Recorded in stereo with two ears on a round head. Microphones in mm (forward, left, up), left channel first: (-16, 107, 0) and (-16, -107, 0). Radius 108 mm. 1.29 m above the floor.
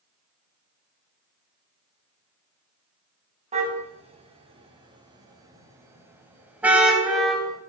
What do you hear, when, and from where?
3.5 s a car horn: 30° right (ahead or behind), 6 m; by 7.6 s centre (ahead or behind), 5 m